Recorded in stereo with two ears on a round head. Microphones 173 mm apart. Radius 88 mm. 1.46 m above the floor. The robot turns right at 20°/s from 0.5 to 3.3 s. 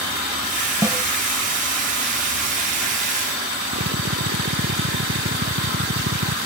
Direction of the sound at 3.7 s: 60° right (ahead or behind).